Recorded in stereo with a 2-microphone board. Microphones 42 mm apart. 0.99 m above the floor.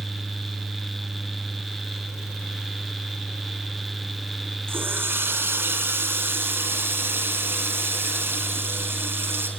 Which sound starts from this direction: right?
A running tap, at 4.7 s.